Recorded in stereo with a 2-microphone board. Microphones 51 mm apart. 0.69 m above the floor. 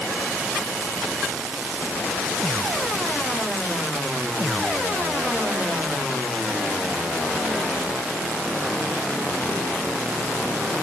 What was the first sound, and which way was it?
Only background noise.